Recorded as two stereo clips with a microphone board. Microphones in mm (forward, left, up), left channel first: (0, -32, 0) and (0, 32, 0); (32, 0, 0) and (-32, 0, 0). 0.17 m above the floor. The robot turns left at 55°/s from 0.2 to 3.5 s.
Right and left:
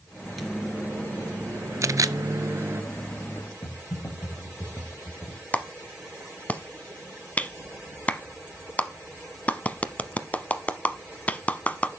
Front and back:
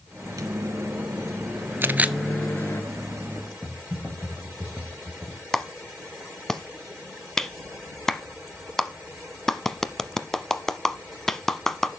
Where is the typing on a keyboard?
115° right, 4 m.